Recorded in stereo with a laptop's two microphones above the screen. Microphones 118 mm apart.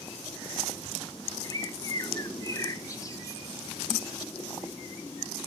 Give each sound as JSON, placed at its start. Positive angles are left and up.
{"t": 1.4, "sound": "a bird", "side_deg": 30, "distance_m": 0.8}